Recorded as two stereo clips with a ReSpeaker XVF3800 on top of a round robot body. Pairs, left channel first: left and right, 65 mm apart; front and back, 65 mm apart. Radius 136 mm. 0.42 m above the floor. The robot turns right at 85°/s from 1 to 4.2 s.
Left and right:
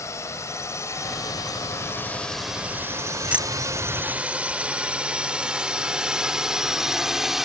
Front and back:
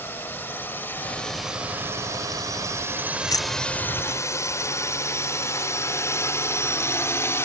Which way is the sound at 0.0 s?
55° left.